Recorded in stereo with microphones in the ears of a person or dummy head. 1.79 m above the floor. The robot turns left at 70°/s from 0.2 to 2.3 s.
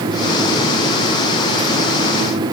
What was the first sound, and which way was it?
Only background noise.